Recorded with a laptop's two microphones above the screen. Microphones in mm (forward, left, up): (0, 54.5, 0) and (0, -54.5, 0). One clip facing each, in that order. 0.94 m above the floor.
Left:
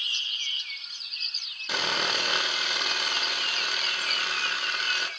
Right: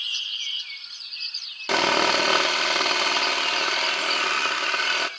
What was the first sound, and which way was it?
Sawing, 85° right.